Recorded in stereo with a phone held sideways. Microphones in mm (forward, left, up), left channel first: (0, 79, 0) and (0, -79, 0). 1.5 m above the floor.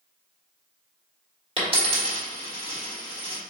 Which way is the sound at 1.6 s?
35° right (ahead or behind).